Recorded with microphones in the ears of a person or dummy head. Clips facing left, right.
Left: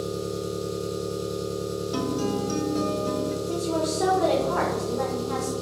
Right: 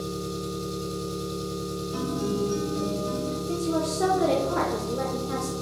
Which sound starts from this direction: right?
An engine running, at 0.0 s.